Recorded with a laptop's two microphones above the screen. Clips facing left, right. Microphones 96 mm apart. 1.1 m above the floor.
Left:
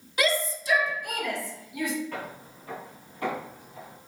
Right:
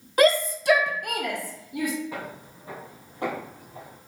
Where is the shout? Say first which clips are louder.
Right 7 dB; 45° right (ahead or behind), 0.5 m.